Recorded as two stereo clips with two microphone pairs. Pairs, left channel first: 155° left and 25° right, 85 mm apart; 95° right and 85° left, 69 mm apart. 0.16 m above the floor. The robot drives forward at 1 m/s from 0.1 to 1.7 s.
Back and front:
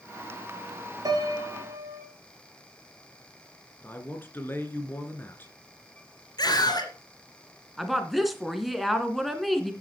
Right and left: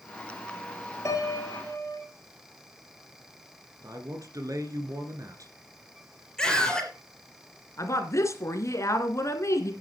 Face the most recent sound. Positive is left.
turn(degrees=-115)